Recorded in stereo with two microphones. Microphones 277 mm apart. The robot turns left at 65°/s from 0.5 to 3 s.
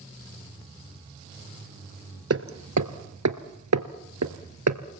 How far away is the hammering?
About 1.4 m.